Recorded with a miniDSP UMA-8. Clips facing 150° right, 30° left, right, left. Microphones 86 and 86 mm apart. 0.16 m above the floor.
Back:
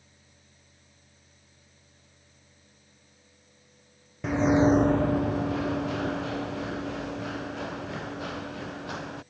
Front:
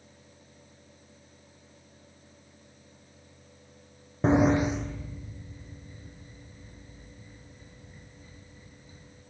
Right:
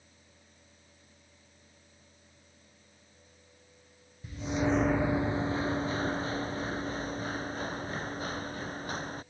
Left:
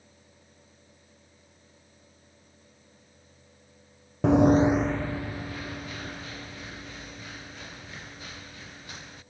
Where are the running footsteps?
85° left; by 9.2 s 140° right.